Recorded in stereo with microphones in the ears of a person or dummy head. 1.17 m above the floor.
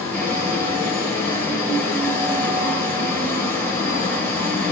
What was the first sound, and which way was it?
A fan, 15° left (ahead or behind).